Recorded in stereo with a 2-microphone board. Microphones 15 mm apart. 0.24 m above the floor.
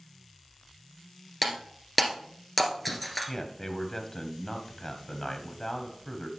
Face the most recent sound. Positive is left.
turn(degrees=30)  # may be behind; listen again after turning